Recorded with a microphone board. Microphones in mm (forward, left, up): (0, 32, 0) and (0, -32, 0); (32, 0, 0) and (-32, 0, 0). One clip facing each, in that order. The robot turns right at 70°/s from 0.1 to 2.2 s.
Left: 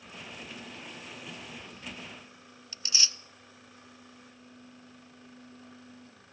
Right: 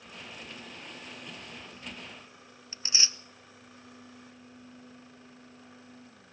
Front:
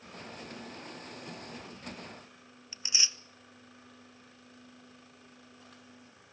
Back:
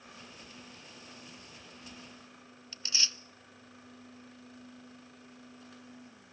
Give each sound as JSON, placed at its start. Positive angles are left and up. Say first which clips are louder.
{"t": 2.7, "sound": "tearing paper", "louder": "even, even", "azimuth_deg": -55, "distance_m": 0.6}